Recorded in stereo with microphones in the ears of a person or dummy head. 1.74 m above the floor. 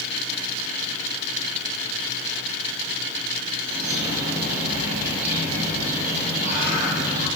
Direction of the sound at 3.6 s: 45° right (ahead or behind).